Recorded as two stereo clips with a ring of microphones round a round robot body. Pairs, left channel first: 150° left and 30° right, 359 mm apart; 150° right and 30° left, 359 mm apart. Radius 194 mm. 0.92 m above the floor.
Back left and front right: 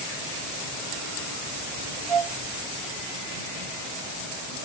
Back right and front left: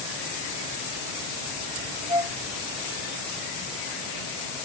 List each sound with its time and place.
2.1 s a flute: 50° right